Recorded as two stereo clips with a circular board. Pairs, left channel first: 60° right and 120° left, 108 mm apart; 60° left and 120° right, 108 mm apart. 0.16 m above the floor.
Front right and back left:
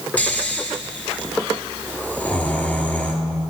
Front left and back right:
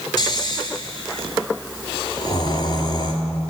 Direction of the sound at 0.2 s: 15° left.